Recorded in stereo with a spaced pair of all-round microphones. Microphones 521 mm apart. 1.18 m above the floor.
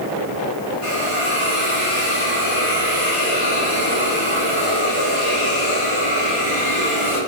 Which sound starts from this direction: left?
A hiss, at 0.8 s.